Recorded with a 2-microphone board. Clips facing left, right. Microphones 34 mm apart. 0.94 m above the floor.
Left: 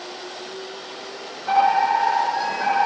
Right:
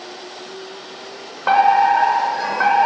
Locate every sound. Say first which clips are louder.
1.5 s a fire alarm: right 4 dB; 70° right (ahead or behind), 7 m